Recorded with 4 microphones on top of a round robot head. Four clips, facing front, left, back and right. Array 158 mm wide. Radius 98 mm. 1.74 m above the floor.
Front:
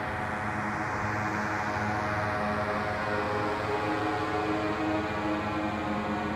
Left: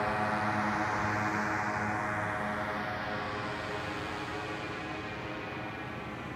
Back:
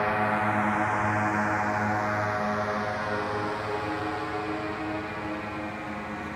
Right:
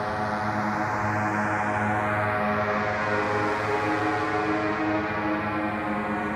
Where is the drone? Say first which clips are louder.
Right 4 dB, back 7 dB; 160° right; by 6.4 s 70° right.